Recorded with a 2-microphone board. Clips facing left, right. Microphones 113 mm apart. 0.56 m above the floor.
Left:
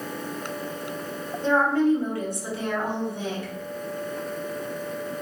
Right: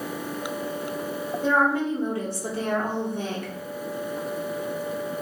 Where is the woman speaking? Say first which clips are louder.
Left 2 dB; 5° right (ahead or behind), 1.0 m; by 3.5 s 55° right (ahead or behind), 1.1 m.